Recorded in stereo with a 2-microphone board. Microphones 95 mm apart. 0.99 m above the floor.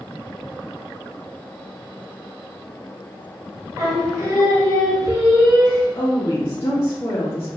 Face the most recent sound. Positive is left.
turn(degrees=25)  # may be behind; listen again after turning